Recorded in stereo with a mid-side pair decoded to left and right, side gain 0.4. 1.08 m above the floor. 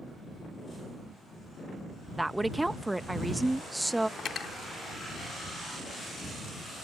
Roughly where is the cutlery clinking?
Ahead left.